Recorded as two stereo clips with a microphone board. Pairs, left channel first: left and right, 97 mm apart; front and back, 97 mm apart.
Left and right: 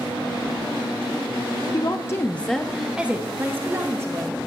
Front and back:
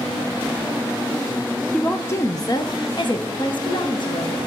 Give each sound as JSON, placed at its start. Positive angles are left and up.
{"t": 1.7, "sound": "a woman speaking", "azimuth_deg": 75, "distance_m": 0.7}